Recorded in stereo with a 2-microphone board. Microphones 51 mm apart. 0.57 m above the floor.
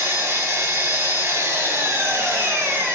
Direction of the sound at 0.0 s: 60° right (ahead or behind).